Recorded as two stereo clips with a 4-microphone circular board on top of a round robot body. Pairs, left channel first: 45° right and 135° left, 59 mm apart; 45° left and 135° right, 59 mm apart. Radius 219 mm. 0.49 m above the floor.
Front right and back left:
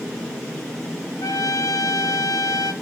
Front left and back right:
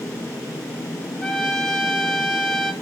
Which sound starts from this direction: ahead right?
A trumpet, at 1.2 s.